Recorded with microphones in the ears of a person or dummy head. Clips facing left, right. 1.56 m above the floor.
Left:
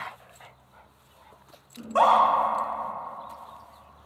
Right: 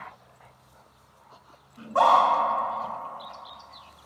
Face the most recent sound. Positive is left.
turn(degrees=40)  # may be behind; listen again after turning